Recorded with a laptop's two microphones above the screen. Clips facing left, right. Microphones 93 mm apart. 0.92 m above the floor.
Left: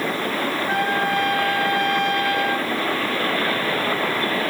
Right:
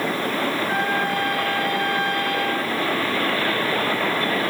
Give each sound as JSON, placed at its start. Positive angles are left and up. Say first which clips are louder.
{"t": 0.7, "sound": "a trumpet", "louder": "left 1 dB", "side_deg": 85, "distance_m": 3.0}